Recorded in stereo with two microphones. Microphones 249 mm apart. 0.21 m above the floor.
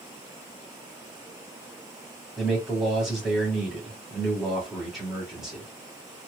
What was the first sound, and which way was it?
A man speaking, centre (ahead or behind).